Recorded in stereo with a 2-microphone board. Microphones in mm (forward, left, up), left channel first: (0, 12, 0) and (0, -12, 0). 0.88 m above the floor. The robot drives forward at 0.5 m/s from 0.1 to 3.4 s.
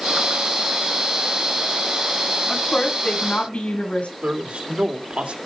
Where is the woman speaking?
85° left, 7.5 m.